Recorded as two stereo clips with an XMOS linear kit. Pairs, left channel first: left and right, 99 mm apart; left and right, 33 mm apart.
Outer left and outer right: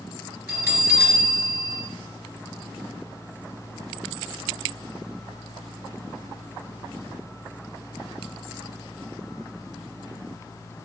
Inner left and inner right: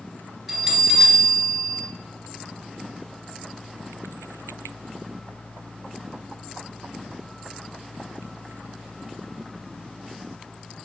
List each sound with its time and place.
0.5 s a bell: 25° right (ahead or behind), 3.5 m